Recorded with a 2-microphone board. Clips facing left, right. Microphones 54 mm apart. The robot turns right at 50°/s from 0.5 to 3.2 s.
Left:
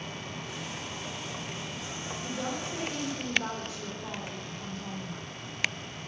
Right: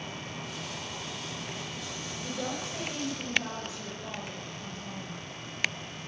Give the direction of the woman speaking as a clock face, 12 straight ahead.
11 o'clock.